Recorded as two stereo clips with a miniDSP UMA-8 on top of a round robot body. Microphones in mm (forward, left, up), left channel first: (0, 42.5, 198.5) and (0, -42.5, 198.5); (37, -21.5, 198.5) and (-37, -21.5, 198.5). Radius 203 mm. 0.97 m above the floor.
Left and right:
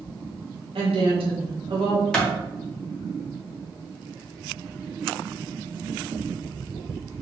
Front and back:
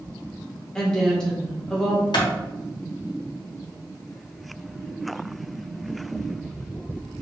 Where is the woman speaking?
80° right, 1.9 m.